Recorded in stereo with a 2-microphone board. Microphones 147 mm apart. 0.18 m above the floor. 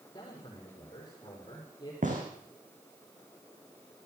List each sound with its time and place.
0.1 s a man speaking: 30° left (ahead or behind), 7 m
2.0 s a gunshot: 60° right (ahead or behind), 5 m